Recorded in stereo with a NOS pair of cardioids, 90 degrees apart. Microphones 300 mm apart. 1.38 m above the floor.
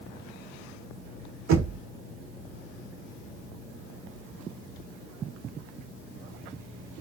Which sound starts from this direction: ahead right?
Knocking, at 1.5 s.